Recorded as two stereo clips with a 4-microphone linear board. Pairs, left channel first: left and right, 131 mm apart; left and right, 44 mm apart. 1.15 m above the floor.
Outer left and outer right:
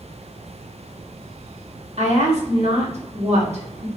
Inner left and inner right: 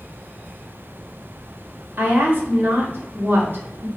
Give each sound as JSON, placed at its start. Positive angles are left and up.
{"t": 2.0, "sound": "a woman speaking", "side_deg": -55, "distance_m": 1.0}